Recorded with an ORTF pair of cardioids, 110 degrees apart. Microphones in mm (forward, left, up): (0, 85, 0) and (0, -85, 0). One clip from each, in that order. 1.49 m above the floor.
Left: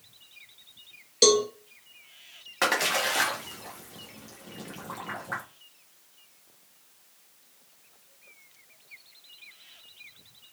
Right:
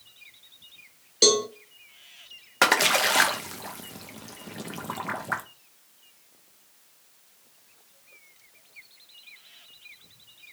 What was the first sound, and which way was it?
A cowbell, 5° left.